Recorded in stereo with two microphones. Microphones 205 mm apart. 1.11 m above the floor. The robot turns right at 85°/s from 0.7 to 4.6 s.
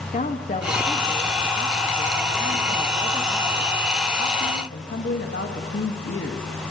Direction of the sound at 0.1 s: 140° left.